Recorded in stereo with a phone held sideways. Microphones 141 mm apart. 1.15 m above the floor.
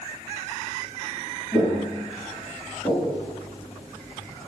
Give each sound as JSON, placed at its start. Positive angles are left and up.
{"t": 1.5, "sound": "footsteps", "side_deg": 15, "distance_m": 1.3}